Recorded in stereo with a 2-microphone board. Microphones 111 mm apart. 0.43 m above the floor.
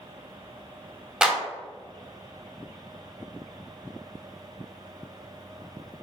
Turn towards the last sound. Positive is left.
turn(degrees=-5)  # may be behind; listen again after turning